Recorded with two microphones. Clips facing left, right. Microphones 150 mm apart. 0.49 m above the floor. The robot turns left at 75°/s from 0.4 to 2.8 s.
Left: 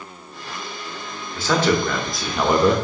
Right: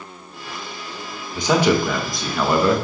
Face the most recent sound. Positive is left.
turn(degrees=20)  # may be behind; listen again after turning